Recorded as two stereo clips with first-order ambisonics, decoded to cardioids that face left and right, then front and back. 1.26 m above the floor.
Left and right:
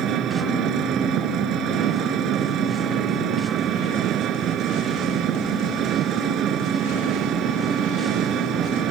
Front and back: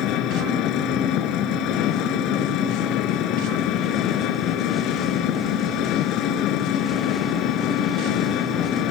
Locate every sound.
0.0 s an engine running: 40° right